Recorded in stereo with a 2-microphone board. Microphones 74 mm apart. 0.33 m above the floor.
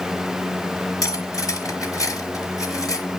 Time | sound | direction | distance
1.0 | cutlery clinking | 50° left (ahead or behind) | 3 m